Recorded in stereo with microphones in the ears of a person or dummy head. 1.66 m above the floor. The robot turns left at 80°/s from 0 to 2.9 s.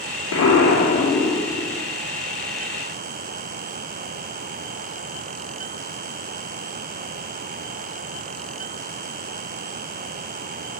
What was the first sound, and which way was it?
An explosion, 95° left.